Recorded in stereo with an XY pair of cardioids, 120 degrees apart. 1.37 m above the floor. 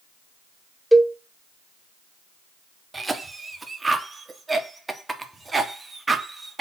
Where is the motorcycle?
I don't hear a motorcycle.